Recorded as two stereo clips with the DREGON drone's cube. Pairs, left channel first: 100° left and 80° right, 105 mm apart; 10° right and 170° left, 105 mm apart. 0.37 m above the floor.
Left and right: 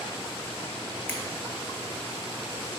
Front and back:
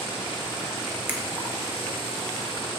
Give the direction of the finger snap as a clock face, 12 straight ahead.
7 o'clock.